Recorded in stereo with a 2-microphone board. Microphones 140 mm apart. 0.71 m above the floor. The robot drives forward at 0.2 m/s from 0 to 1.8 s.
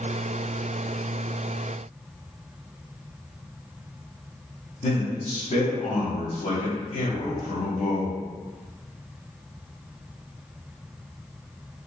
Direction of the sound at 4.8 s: 55° left (ahead or behind).